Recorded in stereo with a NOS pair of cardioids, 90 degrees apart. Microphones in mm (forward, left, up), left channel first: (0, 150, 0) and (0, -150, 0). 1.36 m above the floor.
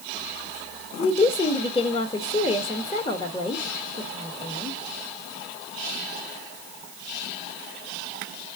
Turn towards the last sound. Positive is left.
turn(degrees=20)